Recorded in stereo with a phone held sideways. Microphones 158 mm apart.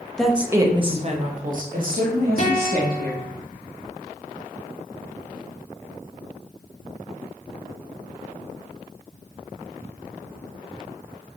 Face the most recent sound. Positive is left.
turn(degrees=55)  # may be behind; listen again after turning